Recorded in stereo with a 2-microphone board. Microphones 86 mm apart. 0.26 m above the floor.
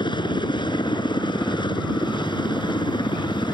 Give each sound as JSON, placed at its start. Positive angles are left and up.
{"t": 0.0, "sound": "a helicopter", "side_deg": 60}